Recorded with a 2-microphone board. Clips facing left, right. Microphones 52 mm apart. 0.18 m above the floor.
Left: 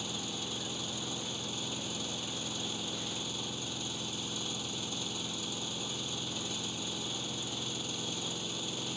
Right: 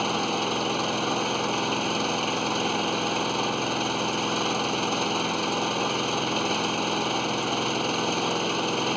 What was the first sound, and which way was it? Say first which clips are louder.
An engine running: right 15 dB; 65° right (ahead or behind).